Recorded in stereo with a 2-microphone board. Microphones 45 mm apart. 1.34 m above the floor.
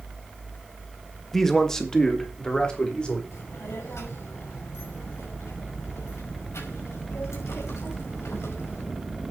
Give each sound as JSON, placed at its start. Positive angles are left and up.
{"t": 1.3, "sound": "a man speaking", "side_deg": 5, "distance_m": 1.6}
{"t": 3.3, "sound": "a child speaking", "side_deg": 80, "distance_m": 5.5}